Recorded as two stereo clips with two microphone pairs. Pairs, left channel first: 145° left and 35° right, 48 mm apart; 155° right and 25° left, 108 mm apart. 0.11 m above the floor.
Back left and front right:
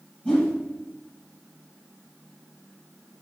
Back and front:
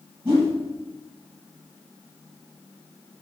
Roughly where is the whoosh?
Left.